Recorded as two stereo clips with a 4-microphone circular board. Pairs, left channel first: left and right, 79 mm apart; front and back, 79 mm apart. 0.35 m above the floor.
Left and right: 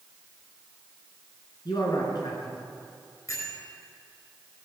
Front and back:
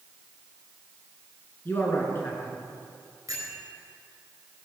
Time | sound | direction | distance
1.6 | a man speaking | 60° left | 3.5 m
3.3 | a bell | 135° left | 4.5 m